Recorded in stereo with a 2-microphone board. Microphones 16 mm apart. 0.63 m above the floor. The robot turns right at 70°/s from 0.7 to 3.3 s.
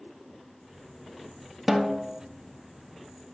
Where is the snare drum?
165° right, 0.6 m; by 2.2 s 130° right, 0.6 m.